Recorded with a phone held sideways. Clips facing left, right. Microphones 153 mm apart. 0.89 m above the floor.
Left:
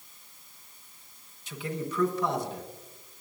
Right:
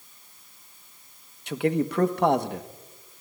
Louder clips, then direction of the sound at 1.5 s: Right 10 dB; 60° right (ahead or behind).